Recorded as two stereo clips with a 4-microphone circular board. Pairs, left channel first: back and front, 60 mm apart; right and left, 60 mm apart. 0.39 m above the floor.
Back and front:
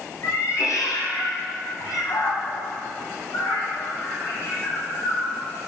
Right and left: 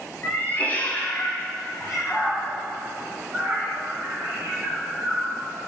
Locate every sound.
0.2 s a cat meowing: 145° right, 1.5 m; by 5.4 s 135° left, 3 m